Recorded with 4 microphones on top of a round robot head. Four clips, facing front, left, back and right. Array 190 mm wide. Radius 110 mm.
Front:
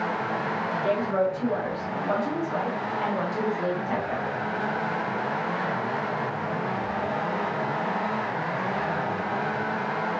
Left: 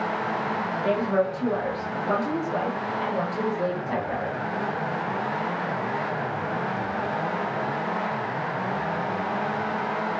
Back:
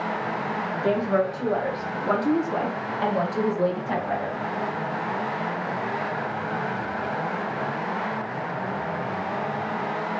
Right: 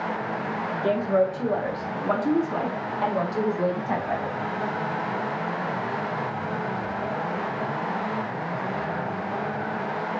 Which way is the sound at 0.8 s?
145° right.